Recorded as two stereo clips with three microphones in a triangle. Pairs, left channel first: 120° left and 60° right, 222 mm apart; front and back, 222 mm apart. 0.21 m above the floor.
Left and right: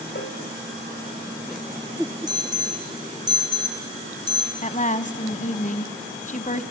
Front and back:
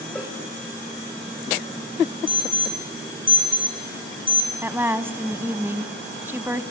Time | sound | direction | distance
0.1 | a cowbell | 85° left | 5 m
2.3 | an alarm | 125° right | 2.5 m
4.6 | a woman speaking | 105° left | 1.2 m